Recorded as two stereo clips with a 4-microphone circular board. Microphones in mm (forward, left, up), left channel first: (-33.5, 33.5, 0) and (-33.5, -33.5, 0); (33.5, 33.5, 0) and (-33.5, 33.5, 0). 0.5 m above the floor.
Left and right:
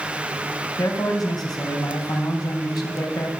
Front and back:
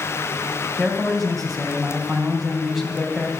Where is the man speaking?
90° left, 3.5 m.